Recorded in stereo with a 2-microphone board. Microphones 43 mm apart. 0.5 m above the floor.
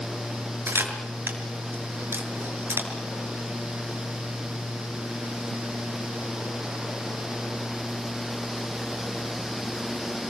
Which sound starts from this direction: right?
A camera shutter, at 0.7 s.